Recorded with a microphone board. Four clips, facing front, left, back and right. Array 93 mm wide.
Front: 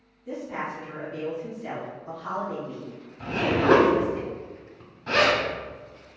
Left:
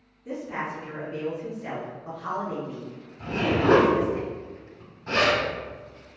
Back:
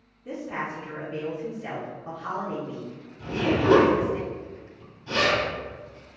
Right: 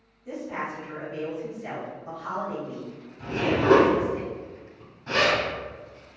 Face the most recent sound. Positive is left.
turn(degrees=0)